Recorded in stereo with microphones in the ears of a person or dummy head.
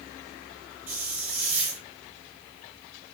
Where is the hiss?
5° right (ahead or behind), 1.1 m.